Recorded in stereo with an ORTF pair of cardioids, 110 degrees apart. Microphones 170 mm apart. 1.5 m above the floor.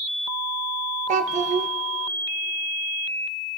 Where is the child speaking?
45° right, 1.0 m.